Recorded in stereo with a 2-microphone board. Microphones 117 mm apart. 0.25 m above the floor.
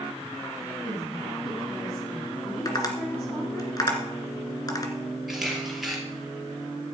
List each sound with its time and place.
0.8 s a woman speaking: 10° left (ahead or behind), 5 m
2.6 s tapping: 35° left (ahead or behind), 2.5 m
5.3 s a camera shutter: 5° right (ahead or behind), 4 m